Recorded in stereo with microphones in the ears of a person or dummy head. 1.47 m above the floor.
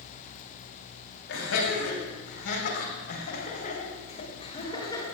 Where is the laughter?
70° left (ahead or behind), 5 m; by 5.0 s 20° left (ahead or behind), 3.5 m.